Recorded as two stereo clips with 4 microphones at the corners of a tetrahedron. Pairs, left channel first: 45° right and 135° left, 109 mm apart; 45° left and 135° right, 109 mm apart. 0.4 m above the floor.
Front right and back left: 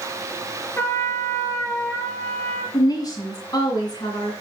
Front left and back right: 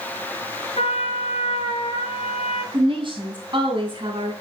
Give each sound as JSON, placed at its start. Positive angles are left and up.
{"t": 0.8, "sound": "a trumpet", "azimuth_deg": 25, "distance_m": 3.5}
{"t": 2.7, "sound": "a woman speaking", "azimuth_deg": -95, "distance_m": 3.0}